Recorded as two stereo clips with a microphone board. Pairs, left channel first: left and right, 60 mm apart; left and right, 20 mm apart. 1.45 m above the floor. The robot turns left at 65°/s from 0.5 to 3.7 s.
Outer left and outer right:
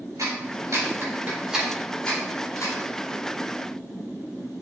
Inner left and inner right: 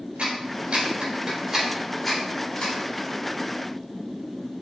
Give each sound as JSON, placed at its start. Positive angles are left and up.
{"t": 0.2, "sound": "a clap", "side_deg": -75, "distance_m": 4.5}